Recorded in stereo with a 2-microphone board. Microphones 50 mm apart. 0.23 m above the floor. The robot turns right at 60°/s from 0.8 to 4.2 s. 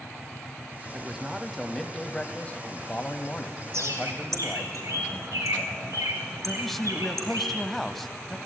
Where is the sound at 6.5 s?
5° left (ahead or behind), 1.1 m.